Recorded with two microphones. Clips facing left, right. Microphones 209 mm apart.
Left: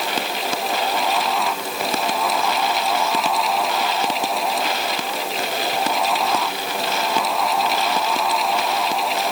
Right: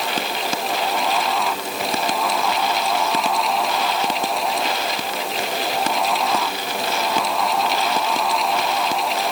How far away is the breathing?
I don't hear breathing.